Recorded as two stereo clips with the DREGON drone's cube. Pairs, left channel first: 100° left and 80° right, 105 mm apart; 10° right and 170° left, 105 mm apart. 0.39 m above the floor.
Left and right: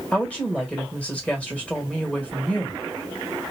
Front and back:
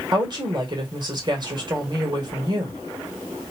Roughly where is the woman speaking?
Behind.